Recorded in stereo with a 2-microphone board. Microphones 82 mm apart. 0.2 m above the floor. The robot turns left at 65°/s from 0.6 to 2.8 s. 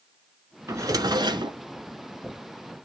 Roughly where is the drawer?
Ahead right.